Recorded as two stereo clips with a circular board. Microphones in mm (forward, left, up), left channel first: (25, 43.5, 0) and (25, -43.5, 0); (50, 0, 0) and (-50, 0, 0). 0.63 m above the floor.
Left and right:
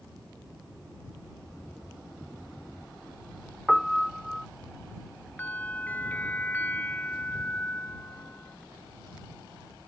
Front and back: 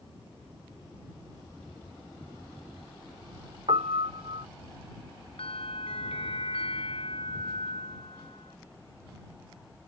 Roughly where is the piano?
Behind.